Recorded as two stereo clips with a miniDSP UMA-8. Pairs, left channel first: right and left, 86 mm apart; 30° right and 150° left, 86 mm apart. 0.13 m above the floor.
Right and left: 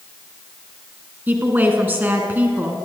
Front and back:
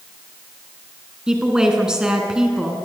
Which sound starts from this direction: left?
A woman speaking, at 1.3 s.